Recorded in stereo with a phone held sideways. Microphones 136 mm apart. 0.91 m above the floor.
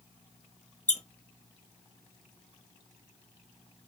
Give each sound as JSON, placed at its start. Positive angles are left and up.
{"t": 0.9, "sound": "a squeak", "side_deg": 60, "distance_m": 0.5}